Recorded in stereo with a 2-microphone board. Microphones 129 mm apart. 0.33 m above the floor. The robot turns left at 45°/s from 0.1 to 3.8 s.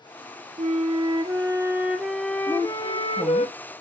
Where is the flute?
110° right, 1.1 m; by 3.5 s 120° left, 1.1 m.